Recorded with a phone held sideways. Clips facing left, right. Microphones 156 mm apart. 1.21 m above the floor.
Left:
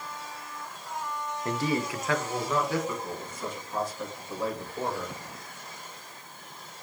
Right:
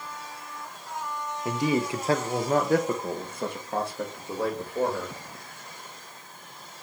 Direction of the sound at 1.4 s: 10° right (ahead or behind).